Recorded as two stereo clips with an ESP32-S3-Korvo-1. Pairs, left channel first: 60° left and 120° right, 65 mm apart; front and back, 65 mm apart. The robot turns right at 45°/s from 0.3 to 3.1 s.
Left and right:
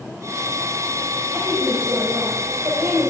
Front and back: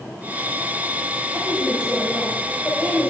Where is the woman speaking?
145° right, 3 m; by 3.1 s 65° right, 3 m.